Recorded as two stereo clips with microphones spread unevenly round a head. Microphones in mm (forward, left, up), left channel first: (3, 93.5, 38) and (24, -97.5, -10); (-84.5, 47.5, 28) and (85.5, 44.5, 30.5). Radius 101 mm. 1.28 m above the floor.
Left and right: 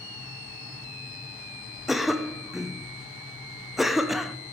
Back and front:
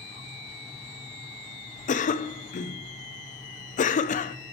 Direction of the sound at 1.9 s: 160° right.